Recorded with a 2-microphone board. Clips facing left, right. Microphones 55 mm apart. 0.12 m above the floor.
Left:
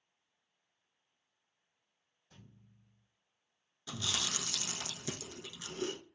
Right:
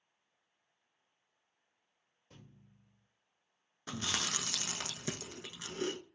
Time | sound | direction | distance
2.3 | a thud | 65° right (ahead or behind) | 1.7 m
3.9 | chewing | 45° right (ahead or behind) | 0.6 m